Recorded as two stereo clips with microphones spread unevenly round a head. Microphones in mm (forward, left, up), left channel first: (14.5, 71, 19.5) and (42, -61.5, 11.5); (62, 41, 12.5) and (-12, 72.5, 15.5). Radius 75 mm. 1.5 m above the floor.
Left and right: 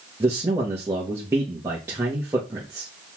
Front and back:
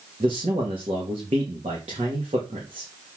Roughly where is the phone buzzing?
No phone buzzing in this recording.